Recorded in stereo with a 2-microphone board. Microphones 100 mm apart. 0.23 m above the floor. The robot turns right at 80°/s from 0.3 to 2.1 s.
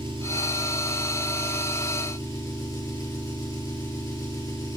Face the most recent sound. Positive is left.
turn(degrees=40)